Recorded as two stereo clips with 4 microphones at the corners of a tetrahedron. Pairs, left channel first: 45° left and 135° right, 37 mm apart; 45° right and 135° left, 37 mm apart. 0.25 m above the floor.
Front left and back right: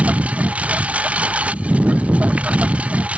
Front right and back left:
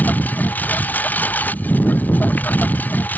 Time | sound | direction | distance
0.0 | a lawn mower | 85° right | ?